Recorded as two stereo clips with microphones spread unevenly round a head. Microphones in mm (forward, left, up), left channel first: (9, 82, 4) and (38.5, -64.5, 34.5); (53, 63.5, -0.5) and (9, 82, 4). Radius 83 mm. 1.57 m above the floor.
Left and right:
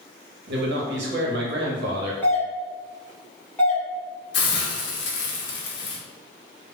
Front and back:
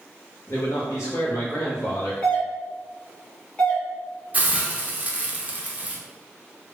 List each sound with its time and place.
0.5 s a man speaking: 70° right, 0.7 m
2.2 s a doorbell: 35° left, 1.1 m
4.3 s a hiss: 110° left, 0.7 m